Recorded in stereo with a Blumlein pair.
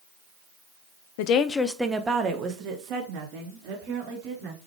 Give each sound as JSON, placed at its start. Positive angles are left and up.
{"t": 1.2, "sound": "a woman speaking", "azimuth_deg": 50, "distance_m": 0.7}